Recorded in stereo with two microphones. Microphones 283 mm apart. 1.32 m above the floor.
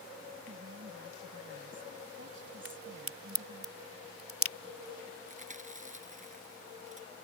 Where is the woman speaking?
45° right (ahead or behind).